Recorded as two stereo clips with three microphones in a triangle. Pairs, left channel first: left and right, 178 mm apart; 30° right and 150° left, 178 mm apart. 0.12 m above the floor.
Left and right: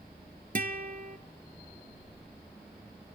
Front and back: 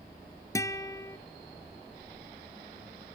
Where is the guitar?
100° right, 0.7 m.